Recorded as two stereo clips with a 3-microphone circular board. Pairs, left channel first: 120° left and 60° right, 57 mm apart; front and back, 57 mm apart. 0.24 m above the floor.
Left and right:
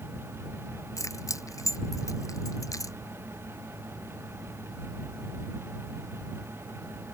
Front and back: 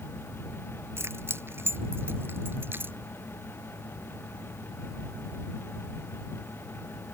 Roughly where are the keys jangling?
Behind left.